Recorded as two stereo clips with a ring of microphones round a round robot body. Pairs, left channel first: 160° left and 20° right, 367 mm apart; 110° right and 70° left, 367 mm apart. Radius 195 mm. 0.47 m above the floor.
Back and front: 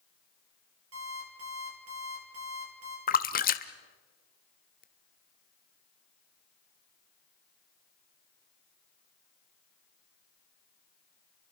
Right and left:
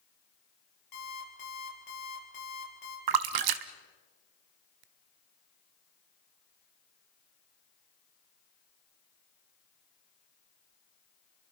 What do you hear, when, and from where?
0.9 s an alarm clock: 75° right, 7 m
3.1 s a splash: 90° left, 1.1 m